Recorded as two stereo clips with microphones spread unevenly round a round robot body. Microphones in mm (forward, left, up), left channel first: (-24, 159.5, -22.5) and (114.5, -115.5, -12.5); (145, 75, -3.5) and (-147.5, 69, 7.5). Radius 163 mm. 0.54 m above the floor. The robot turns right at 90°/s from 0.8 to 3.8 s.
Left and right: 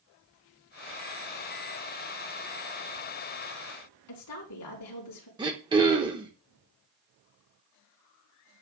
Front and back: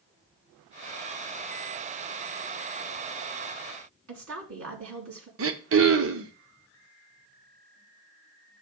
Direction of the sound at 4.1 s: 150° left.